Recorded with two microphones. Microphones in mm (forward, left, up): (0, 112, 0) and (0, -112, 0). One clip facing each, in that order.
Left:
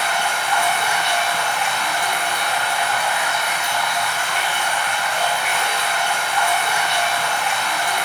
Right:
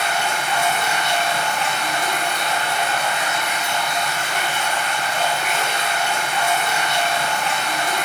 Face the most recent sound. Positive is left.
turn(degrees=-25)  # may be behind; listen again after turning